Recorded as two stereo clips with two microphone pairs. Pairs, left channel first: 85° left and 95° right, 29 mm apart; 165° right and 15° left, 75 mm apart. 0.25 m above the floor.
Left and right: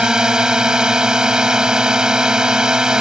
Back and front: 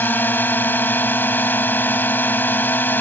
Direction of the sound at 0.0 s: 130° right.